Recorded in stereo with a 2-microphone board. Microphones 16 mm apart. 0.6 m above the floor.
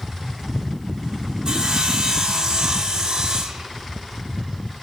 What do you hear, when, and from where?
1.4 s sawing: 50° right (ahead or behind), 0.8 m